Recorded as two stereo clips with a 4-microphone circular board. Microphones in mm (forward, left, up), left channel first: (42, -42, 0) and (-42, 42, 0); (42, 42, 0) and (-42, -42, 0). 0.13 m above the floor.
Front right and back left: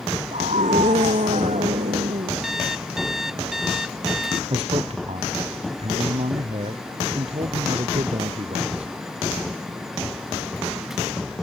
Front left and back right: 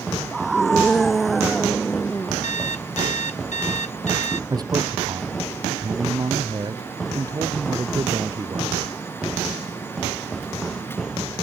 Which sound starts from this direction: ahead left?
An alarm clock, at 2.4 s.